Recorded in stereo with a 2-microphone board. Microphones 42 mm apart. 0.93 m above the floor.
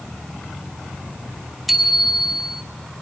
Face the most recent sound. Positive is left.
turn(degrees=-5)  # may be behind; listen again after turning